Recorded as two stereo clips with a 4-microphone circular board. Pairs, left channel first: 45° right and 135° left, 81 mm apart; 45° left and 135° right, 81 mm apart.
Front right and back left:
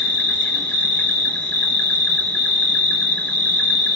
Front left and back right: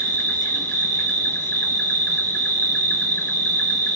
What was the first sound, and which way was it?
An insect, 5° left.